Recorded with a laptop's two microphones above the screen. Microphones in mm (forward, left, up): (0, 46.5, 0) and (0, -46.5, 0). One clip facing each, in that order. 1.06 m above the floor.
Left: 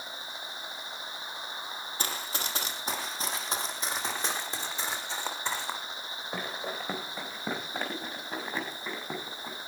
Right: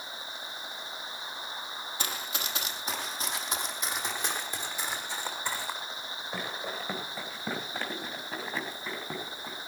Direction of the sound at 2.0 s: 40° left (ahead or behind).